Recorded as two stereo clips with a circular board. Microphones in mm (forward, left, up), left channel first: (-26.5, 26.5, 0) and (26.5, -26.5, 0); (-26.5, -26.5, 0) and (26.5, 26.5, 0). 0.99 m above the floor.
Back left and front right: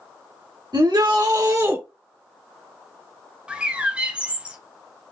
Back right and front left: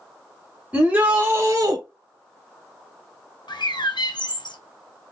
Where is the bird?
120° right, 0.8 m.